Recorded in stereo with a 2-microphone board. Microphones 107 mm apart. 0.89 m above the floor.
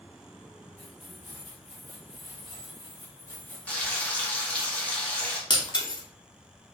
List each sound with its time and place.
0.8 s keys jangling: 75° left (ahead or behind), 1.7 m; by 4.7 s 30° right (ahead or behind), 0.9 m
3.7 s frying: 15° left (ahead or behind), 0.7 m
5.5 s breaking glass: 45° left (ahead or behind), 0.6 m